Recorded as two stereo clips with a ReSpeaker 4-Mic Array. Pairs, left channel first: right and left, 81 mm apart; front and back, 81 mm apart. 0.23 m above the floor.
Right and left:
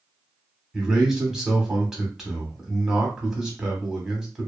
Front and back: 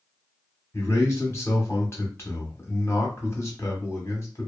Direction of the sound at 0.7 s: 10° left.